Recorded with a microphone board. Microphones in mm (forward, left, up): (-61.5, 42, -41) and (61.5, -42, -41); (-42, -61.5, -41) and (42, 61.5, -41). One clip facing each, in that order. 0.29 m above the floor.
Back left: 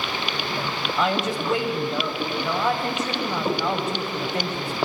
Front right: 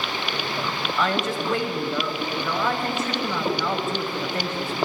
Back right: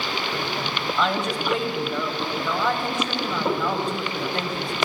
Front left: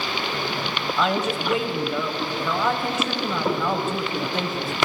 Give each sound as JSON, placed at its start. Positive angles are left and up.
{"t": 1.0, "sound": "a woman speaking", "azimuth_deg": 130, "distance_m": 1.1}